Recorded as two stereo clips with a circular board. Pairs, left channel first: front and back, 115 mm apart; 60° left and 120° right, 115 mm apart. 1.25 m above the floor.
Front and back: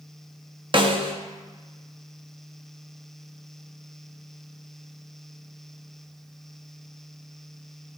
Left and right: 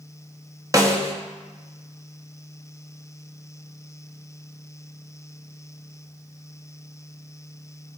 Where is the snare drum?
170° right, 0.8 m.